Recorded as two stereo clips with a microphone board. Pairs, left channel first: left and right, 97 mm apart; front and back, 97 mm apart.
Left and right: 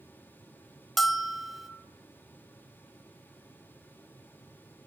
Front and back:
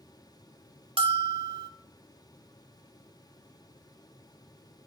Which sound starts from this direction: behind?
A bell, at 1.0 s.